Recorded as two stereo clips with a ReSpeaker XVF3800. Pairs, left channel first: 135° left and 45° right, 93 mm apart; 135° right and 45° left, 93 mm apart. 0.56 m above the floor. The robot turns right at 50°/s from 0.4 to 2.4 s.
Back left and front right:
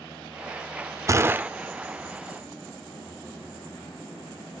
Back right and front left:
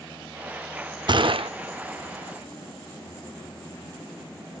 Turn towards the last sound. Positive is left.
turn(degrees=75)